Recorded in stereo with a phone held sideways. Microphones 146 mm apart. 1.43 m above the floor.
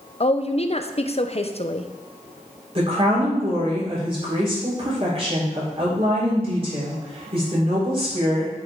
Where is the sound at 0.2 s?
45° left (ahead or behind), 0.5 m.